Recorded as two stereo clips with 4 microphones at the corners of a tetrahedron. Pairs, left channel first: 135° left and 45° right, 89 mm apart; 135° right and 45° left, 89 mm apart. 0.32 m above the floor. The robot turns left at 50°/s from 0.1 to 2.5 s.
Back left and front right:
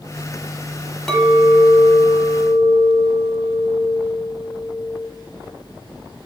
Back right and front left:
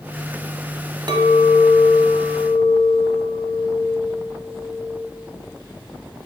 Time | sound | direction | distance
1.1 | a clink | 50° left | 0.9 m